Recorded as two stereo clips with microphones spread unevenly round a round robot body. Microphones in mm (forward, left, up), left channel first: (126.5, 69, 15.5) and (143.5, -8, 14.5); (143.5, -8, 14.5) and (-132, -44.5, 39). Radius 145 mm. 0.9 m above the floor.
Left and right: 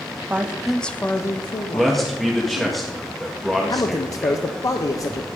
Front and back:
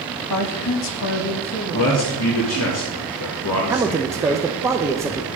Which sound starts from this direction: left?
A man speaking, at 3.7 s.